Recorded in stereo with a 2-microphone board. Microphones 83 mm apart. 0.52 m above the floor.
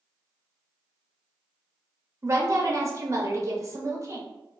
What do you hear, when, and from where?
2.2 s a woman speaking: 35° right (ahead or behind), 0.7 m